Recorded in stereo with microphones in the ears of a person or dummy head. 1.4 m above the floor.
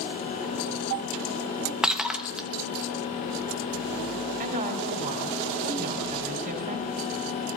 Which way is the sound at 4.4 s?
45° right (ahead or behind).